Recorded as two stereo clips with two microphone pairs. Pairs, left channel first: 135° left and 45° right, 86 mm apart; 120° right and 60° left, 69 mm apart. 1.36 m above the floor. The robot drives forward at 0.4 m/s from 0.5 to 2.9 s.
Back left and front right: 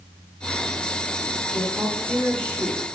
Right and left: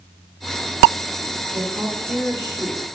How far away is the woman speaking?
About 1.6 m.